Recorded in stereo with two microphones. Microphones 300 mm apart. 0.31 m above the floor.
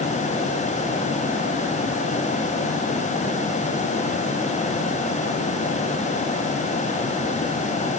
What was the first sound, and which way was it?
Only background noise.